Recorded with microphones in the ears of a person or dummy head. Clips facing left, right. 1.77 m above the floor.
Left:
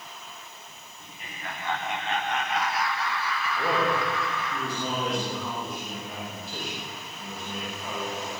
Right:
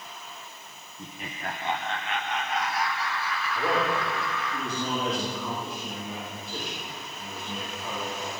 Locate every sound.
1.0 s laughter: 60° right (ahead or behind), 1.4 m; by 4.5 s 80° left, 4 m
3.5 s a man speaking: centre (ahead or behind), 3.5 m